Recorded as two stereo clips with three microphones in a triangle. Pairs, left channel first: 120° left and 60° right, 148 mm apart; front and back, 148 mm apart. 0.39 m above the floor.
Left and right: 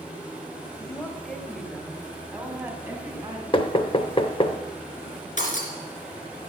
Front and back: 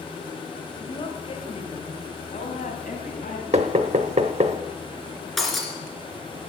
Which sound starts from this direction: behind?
Knocking, at 3.5 s.